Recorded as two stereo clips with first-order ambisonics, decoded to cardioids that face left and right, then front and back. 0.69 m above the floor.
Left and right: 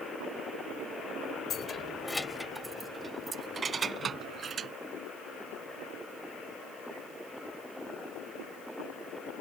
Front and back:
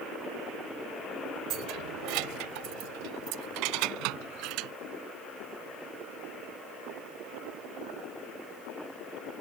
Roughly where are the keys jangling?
Behind left.